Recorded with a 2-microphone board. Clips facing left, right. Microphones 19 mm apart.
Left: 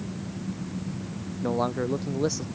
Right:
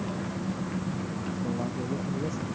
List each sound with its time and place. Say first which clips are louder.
0.0 s an engine running: right 3 dB; 70° right (ahead or behind)
1.4 s a man speaking: left 8 dB; 85° left